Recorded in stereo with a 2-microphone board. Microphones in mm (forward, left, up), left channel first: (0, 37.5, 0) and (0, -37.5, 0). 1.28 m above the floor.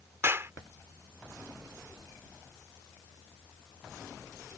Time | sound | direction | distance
0.2 | a clap | 35° right (ahead or behind) | ?